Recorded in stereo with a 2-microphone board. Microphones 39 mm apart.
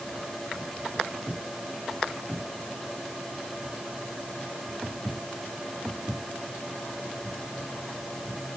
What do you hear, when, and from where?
Only background noise.